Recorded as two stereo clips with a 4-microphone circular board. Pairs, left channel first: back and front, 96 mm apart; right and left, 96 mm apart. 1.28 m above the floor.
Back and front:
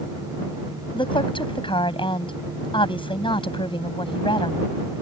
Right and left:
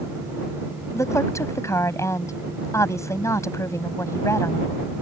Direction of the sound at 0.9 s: 150° right.